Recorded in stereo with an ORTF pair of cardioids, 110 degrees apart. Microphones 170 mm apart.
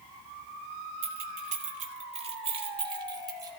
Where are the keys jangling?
65° right, 2.5 m; by 3.5 s 20° right, 4 m.